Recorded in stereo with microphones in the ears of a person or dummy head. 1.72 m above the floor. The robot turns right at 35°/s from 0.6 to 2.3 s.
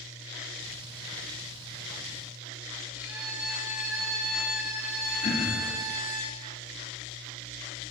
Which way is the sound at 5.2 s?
35° left (ahead or behind).